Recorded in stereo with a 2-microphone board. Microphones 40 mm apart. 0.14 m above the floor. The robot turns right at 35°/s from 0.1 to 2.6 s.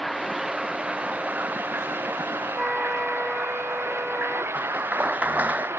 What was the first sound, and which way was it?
Running water, straight behind.